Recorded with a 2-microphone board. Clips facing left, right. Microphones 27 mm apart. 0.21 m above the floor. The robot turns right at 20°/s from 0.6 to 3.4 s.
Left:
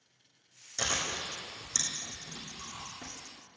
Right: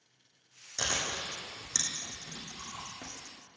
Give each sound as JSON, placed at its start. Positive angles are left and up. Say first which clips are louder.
{"t": 0.8, "sound": "chewing", "louder": "even", "side_deg": -15, "distance_m": 2.5}